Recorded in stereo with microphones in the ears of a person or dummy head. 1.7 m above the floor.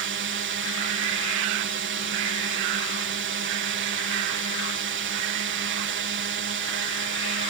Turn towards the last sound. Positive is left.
turn(degrees=-60)  # may be behind; listen again after turning